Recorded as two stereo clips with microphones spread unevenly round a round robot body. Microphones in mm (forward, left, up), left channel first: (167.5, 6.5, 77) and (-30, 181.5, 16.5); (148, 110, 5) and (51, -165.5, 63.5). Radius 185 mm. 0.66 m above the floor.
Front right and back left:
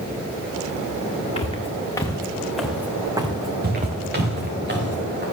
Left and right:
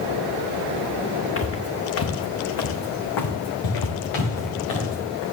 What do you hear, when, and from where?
1.4 s footsteps: 20° left, 3 m; by 4.6 s 85° left, 3 m
3.6 s footsteps: 85° left, 6.5 m; by 5.2 s 90° left, 8 m